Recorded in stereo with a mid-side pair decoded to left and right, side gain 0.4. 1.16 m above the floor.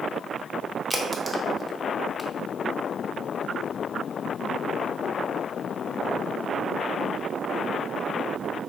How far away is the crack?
About 0.7 m.